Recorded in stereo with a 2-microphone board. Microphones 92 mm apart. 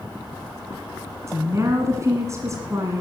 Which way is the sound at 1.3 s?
35° right (ahead or behind).